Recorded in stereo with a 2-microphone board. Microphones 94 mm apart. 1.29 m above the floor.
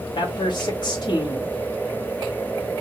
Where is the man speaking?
50° left (ahead or behind), 1.8 m.